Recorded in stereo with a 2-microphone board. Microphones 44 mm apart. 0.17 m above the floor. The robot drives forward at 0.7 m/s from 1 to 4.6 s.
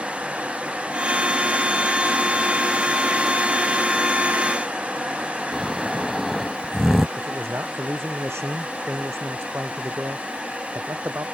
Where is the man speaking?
75° right (ahead or behind).